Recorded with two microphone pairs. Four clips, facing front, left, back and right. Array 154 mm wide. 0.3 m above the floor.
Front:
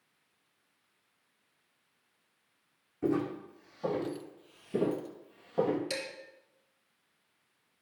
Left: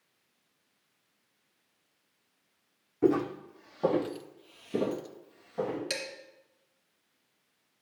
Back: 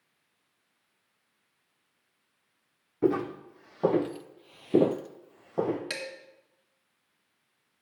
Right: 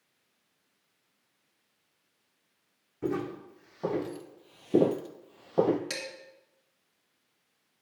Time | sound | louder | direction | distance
3.0 | footsteps | left 6 dB, back 4 dB | 145° left | 1.3 m
5.9 | dishes clattering | left 2 dB, front 1 dB | 155° right | 2 m